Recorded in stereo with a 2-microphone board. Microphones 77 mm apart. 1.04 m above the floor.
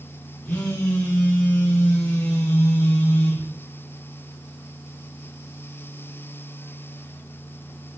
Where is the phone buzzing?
15° left (ahead or behind), 1.7 m.